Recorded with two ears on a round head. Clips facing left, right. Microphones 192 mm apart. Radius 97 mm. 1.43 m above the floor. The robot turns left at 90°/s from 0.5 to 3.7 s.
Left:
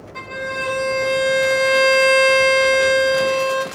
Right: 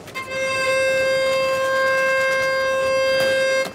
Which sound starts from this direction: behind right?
A violin, at 0.1 s.